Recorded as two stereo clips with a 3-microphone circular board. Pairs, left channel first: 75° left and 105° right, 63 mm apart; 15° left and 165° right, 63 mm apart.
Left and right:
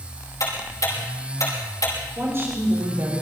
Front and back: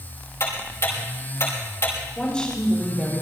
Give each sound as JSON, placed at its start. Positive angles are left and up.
{"t": 0.4, "sound": "ticking", "azimuth_deg": 55, "distance_m": 6.0}
{"t": 2.2, "sound": "a woman speaking", "azimuth_deg": -60, "distance_m": 5.0}